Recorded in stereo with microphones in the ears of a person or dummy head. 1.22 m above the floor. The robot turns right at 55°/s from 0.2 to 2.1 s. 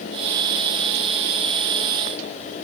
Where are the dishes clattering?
No dishes clattering in this recording.